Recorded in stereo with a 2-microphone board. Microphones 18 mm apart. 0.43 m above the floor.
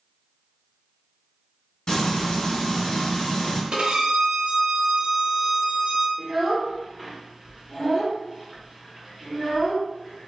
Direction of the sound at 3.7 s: 70° right (ahead or behind).